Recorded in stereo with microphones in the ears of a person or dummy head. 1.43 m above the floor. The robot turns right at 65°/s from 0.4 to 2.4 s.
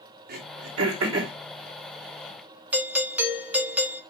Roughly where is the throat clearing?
Right.